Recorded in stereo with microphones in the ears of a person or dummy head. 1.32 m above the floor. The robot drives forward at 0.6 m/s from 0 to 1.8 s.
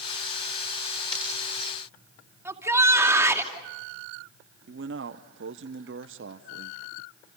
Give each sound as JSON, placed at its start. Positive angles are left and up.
{"t": 1.1, "sound": "breaking glass", "side_deg": 30, "distance_m": 8.5}
{"t": 2.5, "sound": "a shout", "side_deg": -15, "distance_m": 3.0}
{"t": 4.7, "sound": "a man speaking", "side_deg": -65, "distance_m": 0.8}